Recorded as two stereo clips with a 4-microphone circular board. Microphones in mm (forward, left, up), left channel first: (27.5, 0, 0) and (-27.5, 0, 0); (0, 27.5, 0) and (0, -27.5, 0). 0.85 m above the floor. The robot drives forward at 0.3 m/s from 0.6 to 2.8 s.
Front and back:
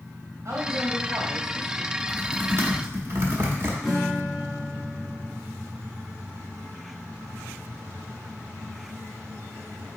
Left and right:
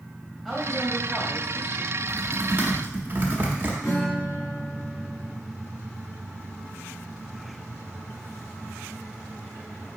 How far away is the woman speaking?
About 1.7 m.